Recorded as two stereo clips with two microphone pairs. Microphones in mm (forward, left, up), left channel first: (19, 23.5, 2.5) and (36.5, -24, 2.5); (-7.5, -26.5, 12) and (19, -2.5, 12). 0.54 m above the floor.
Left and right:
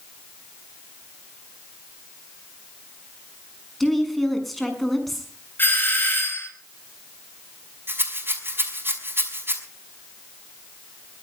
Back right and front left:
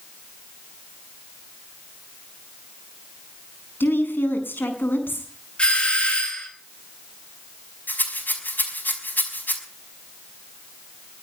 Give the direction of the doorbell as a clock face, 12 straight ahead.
7 o'clock.